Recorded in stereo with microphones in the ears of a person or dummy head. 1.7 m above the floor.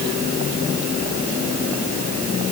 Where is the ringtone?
I don't hear a ringtone.